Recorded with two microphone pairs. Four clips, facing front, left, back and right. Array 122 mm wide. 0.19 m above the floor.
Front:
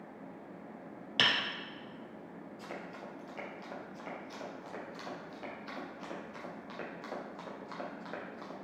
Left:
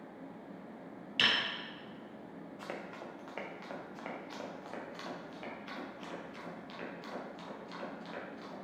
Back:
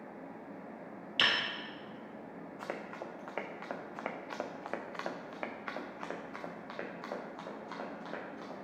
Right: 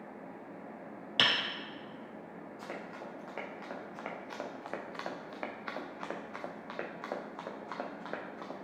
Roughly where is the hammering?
Ahead right.